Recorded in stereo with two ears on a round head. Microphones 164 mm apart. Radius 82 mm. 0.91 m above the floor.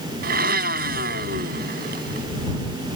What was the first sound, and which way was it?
A blender, 55° right (ahead or behind).